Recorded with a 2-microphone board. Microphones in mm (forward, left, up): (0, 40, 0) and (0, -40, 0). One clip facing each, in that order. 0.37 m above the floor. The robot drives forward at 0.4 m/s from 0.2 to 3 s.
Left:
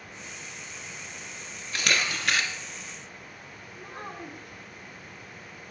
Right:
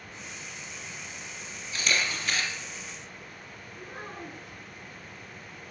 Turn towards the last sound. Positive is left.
turn(degrees=60)  # may be behind; listen again after turning